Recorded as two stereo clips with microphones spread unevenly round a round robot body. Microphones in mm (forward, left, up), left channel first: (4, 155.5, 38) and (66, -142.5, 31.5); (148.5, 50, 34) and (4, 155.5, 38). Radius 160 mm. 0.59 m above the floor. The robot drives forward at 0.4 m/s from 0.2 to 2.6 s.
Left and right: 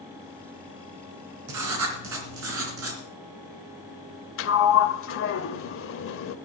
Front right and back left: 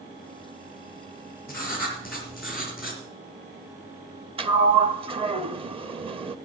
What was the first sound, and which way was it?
Writing, 120° right.